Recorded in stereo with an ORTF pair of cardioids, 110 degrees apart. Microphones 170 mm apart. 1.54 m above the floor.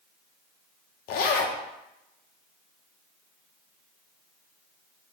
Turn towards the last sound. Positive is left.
turn(degrees=70)